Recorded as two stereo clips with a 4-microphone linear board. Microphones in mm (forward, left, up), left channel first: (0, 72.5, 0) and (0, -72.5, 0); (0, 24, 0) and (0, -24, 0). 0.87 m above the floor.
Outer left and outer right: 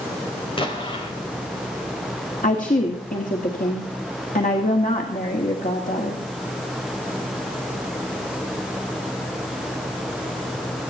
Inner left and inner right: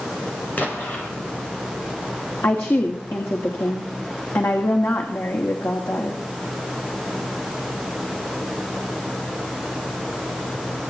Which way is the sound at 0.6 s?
35° left (ahead or behind).